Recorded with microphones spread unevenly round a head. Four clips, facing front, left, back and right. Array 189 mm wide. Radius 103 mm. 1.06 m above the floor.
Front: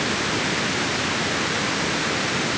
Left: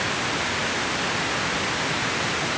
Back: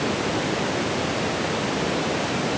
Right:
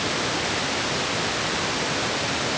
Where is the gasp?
I don't hear a gasp.